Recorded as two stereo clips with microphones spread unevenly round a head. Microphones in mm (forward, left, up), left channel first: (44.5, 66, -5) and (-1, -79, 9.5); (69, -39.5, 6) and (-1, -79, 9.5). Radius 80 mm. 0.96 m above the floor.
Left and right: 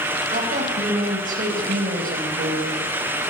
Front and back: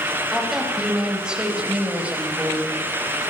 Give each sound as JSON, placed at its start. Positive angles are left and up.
{"t": 0.3, "sound": "a woman speaking", "azimuth_deg": -65, "distance_m": 5.0}